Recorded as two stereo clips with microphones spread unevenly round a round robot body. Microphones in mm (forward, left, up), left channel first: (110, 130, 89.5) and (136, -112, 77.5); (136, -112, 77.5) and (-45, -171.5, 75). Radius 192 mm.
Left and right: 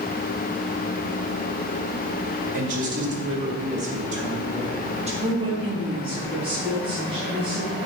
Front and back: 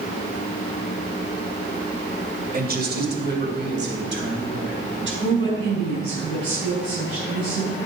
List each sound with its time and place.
2.5 s a man speaking: 125° right, 2.5 m; by 5.1 s 150° right, 4 m
5.2 s a woman speaking: 155° right, 5 m